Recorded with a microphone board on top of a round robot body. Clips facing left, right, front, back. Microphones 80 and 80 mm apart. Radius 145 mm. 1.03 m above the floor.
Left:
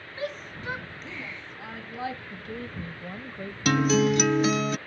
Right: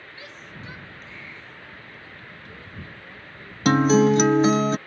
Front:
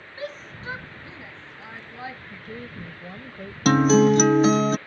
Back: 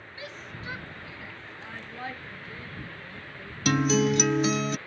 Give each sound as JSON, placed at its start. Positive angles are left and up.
{"t": 0.2, "sound": "a shout", "azimuth_deg": 45}
{"t": 2.3, "sound": "a woman speaking", "azimuth_deg": 40}
{"t": 3.6, "sound": "a guitar", "azimuth_deg": -40}